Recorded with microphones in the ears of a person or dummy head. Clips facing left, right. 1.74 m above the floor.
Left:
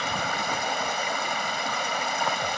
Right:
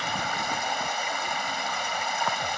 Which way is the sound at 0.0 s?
60° left (ahead or behind).